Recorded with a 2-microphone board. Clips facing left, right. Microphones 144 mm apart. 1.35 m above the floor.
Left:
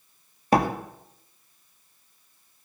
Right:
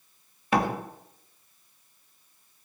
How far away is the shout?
No shout in this recording.